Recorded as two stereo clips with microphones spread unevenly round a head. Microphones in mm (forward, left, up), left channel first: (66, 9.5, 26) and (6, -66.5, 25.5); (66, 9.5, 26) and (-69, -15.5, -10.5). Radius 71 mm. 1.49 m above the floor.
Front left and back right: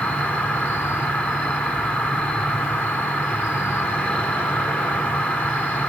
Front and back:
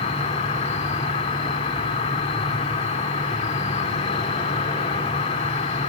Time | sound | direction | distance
0.0 | an insect | 20° right | 3 m